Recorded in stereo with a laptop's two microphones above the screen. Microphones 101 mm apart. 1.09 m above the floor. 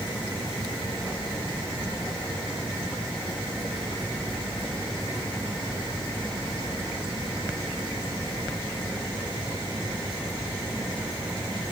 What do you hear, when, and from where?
Only background noise.